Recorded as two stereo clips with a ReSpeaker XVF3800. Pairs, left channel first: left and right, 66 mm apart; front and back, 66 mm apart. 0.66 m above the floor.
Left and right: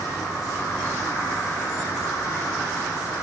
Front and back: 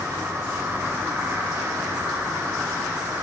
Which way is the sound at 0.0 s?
125° left.